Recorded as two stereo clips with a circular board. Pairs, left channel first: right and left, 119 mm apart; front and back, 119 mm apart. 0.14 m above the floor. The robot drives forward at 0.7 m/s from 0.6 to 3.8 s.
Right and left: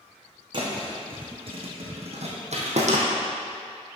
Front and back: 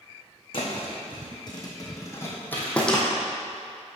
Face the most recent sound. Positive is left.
turn(degrees=105)